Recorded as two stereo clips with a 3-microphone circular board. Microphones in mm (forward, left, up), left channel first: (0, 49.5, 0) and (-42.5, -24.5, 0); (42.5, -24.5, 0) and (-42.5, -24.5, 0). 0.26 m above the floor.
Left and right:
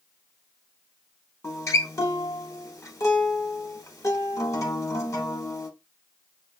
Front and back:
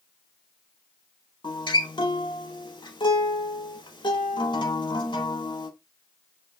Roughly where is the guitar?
Ahead.